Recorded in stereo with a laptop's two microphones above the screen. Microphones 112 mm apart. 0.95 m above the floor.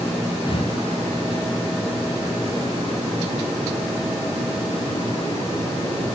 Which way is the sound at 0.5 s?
45° left (ahead or behind).